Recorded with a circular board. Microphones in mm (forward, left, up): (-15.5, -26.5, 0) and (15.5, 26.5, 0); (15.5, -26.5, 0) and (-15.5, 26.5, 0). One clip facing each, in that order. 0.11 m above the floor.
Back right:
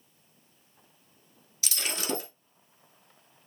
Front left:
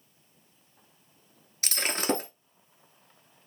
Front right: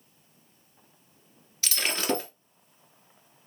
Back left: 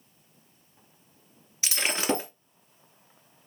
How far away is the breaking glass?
About 1.0 m.